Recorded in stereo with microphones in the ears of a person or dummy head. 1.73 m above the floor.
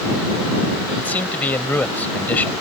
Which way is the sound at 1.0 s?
10° left (ahead or behind).